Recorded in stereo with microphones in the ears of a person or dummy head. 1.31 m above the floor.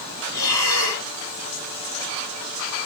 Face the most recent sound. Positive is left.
turn(degrees=20)  # may be behind; listen again after turning